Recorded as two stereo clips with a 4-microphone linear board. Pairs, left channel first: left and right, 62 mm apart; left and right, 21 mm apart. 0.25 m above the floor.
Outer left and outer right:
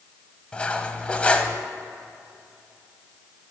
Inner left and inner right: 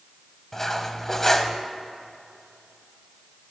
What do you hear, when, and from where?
0.5 s cutlery clinking: 20° left (ahead or behind), 0.6 m